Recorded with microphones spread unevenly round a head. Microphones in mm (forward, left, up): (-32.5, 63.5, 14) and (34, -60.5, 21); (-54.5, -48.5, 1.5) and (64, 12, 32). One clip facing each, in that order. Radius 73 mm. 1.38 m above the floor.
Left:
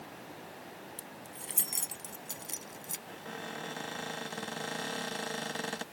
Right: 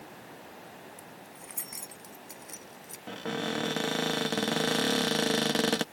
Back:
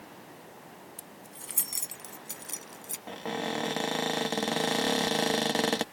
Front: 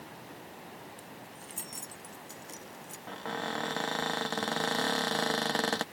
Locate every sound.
1.0 s keys jangling: 175° left; by 3.0 s straight behind
3.1 s a cupboard door: 85° right